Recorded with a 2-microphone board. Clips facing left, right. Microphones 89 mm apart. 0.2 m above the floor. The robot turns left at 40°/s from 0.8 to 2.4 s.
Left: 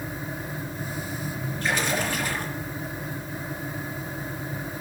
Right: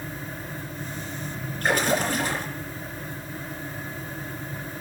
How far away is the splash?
About 4 m.